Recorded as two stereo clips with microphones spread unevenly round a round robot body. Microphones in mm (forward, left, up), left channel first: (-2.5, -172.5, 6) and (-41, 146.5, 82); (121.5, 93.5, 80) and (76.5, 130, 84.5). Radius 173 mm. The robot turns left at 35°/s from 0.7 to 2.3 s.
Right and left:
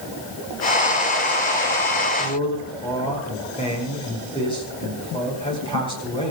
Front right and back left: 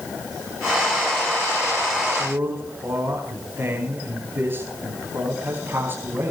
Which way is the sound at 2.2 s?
155° right.